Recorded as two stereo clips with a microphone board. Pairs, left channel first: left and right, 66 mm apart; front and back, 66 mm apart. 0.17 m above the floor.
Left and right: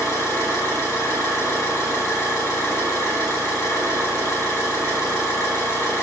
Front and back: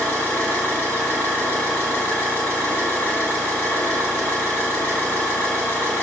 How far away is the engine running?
About 2 m.